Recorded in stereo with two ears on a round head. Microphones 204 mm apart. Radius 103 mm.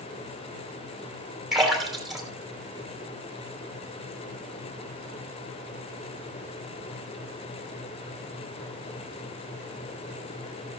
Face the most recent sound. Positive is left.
turn(degrees=0)  # may be behind; listen again after turning